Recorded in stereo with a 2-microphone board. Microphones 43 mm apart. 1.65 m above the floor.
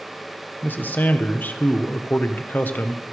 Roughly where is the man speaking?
Left.